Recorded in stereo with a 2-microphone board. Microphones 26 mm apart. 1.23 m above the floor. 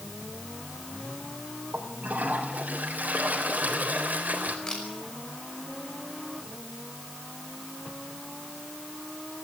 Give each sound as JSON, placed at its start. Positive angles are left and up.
{"t": 1.7, "sound": "a toilet flushing", "side_deg": -85, "distance_m": 3.5}
{"t": 4.7, "sound": "a camera shutter", "side_deg": 30, "distance_m": 5.5}